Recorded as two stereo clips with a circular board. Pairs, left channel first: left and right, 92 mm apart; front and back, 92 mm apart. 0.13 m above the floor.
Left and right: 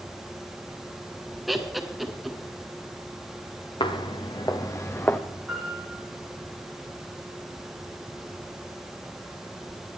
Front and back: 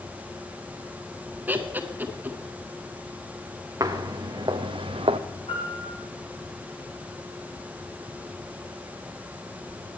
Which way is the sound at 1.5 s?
175° right.